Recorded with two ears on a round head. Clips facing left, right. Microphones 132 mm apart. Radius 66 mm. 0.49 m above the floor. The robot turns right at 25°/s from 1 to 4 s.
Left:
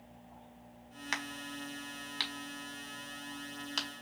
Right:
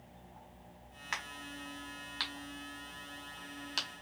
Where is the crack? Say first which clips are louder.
Left 3 dB; 40° left (ahead or behind), 1.6 m; by 3.9 s 5° right (ahead or behind), 1.6 m.